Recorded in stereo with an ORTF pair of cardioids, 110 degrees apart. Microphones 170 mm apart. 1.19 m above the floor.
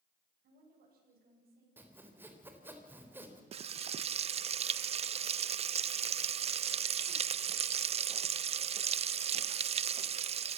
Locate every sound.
0.4 s a woman speaking: 60° right, 8 m
1.8 s sawing: 10° right, 3.5 m
3.5 s frying: 40° right, 0.6 m